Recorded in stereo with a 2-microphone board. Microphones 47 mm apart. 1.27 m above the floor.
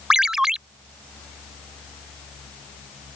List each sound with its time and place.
0.1 s a ringtone: 15° right (ahead or behind)